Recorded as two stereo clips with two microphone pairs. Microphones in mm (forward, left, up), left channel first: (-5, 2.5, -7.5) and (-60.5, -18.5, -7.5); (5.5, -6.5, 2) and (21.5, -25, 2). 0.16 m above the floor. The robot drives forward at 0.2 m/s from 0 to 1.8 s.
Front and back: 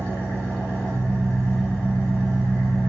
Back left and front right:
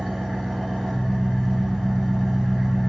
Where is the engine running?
85° left, 1.5 m; by 2.9 s 110° left, 1.5 m.